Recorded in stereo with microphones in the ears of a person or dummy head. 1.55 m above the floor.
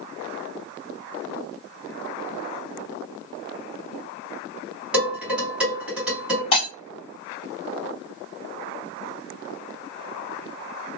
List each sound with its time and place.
4.9 s dishes clattering: 5° right (ahead or behind), 1.5 m
6.5 s breaking glass: 30° left (ahead or behind), 1.4 m